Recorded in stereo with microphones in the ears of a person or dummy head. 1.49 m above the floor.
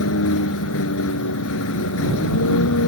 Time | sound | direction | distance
0.0 | a vehicle | 70° left (ahead or behind) | ?